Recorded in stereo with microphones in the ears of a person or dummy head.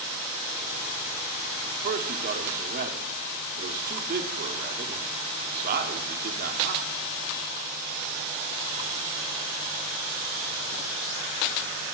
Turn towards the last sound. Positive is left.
turn(degrees=-50)  # may be behind; listen again after turning